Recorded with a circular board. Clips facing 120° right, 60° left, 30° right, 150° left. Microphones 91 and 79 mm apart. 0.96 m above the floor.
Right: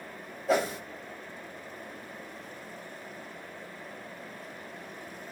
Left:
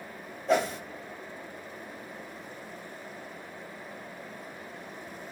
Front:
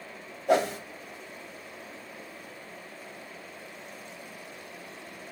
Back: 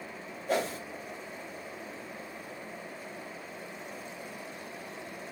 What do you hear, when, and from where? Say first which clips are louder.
0.5 s a whoosh: left 1 dB, front 6 dB; 35° right, 0.8 m